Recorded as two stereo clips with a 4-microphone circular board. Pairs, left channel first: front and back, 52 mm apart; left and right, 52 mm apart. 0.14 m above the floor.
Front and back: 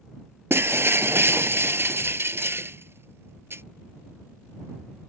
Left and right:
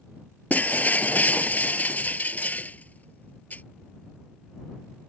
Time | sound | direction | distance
0.5 | breaking glass | 145° left | ?